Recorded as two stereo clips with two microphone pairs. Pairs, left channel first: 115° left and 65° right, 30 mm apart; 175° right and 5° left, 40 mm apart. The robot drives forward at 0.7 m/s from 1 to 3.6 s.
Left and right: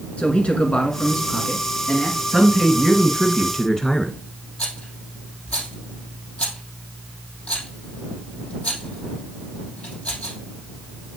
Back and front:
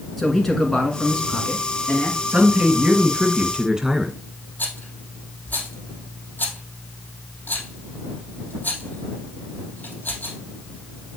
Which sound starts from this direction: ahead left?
A man speaking, at 2.3 s.